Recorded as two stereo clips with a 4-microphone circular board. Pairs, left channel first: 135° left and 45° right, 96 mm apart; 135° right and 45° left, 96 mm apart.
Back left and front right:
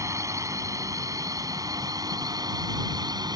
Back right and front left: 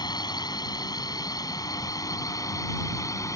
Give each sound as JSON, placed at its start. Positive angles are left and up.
{"t": 0.0, "sound": "a drone", "azimuth_deg": -100}